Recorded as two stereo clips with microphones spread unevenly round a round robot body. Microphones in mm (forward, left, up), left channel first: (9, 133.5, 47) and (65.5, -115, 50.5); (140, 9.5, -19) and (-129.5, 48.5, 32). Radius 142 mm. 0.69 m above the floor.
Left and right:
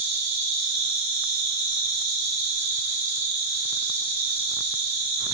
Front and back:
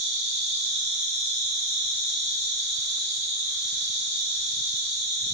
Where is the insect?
125° right, 1.9 m.